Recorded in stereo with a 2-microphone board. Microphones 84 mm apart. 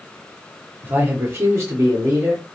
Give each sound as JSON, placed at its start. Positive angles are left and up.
{"t": 0.8, "sound": "a man speaking", "side_deg": -20, "distance_m": 0.7}